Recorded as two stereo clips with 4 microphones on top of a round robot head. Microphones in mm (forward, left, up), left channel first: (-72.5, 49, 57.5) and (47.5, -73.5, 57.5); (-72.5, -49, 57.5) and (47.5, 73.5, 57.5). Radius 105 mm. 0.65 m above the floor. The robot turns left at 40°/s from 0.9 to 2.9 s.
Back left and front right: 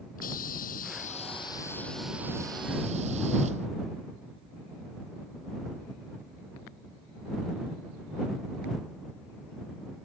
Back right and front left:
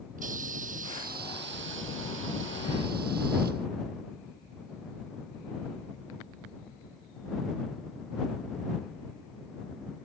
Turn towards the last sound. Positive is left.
turn(degrees=10)